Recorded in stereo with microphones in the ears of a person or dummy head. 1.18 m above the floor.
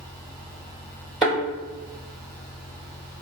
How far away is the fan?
About 1.1 m.